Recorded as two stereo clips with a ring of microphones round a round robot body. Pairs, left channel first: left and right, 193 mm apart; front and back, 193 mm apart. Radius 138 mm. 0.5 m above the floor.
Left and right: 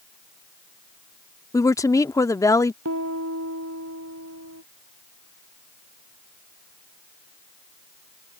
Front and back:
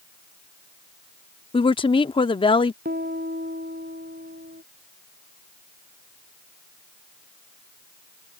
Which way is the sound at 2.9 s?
120° right.